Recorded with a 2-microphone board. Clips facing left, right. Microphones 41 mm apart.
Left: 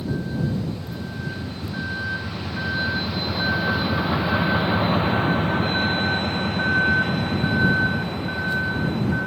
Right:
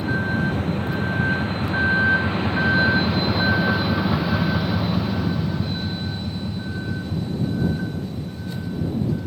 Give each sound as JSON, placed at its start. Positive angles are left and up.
{"t": 0.0, "sound": "a vehicle", "side_deg": -50}